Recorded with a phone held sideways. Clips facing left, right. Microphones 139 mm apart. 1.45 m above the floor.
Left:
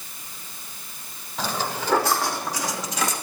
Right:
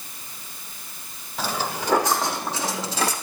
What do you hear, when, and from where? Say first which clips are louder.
1.4 s footsteps: even; 5° right (ahead or behind), 4 m; by 3.1 s 35° right (ahead or behind), 4.5 m